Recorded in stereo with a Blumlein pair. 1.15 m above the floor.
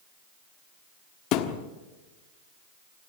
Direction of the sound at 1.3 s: 40° left.